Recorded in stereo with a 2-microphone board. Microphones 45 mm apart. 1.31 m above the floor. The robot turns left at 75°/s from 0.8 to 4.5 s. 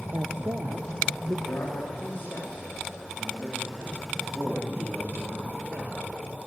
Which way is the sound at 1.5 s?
95° left.